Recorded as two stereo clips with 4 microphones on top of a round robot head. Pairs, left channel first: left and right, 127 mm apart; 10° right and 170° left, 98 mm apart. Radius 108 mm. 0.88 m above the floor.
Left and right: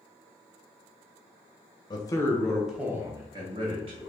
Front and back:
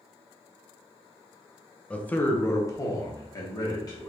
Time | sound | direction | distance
1.9 | a man speaking | 65° left | 0.9 m